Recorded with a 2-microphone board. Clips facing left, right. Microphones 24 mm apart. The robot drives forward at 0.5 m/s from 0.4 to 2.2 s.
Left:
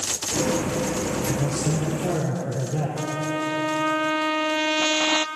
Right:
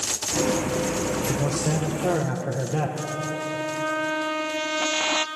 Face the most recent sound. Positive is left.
turn(degrees=20)  # may be behind; listen again after turning